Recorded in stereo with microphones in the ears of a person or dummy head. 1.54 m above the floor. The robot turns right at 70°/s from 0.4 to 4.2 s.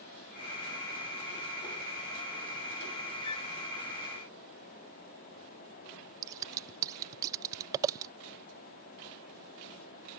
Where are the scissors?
30° right (ahead or behind).